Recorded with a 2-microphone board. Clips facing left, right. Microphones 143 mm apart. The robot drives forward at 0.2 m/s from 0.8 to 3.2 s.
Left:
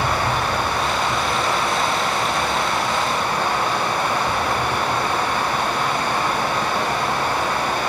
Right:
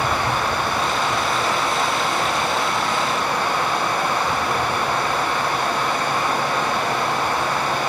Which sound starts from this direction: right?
Running water, at 0.0 s.